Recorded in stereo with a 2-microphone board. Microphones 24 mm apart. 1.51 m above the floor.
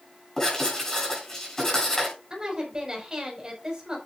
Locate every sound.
0.4 s writing: 20° left (ahead or behind), 10 m
2.3 s a woman speaking: 25° right (ahead or behind), 5.5 m